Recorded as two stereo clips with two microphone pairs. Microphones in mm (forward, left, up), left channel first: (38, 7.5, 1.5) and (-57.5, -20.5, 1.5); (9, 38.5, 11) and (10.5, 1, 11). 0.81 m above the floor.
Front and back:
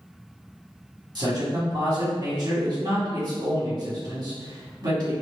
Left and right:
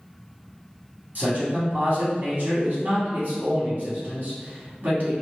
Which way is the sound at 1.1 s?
125° right.